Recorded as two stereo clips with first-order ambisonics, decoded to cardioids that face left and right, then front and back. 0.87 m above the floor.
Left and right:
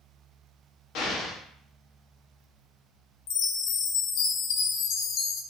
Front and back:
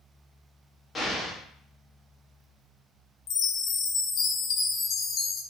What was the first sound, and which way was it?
An explosion, 75° left.